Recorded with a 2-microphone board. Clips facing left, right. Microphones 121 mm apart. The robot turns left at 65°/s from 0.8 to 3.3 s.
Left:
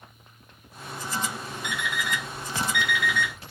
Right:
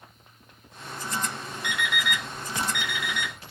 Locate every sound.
1.6 s an alarm clock: 55° right (ahead or behind), 0.9 m; by 3.3 s 10° right (ahead or behind), 0.9 m